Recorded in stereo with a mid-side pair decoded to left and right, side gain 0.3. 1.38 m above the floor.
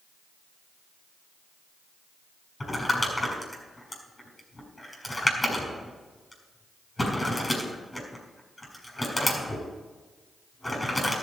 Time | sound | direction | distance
2.6 | crumpling | 20° left | 6 m